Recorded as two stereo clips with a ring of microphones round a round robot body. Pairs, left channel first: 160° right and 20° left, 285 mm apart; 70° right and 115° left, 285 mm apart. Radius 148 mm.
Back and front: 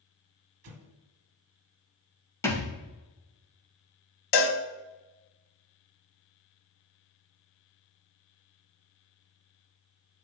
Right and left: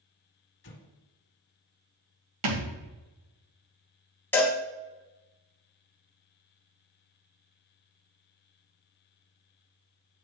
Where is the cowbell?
150° right, 1.0 m.